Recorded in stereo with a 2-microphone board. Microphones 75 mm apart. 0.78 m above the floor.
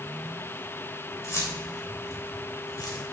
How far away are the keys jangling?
About 2.5 m.